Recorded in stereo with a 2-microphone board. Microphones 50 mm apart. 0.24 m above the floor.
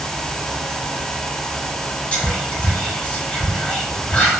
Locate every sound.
2.1 s whispering: 30° left (ahead or behind), 1.4 m